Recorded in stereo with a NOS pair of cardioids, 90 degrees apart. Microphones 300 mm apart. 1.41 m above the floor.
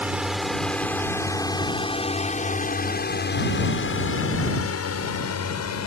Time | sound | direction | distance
0.0 | a drone | 5° right | ?